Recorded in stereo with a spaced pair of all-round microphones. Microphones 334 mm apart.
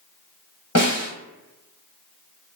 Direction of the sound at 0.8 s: 55° left (ahead or behind).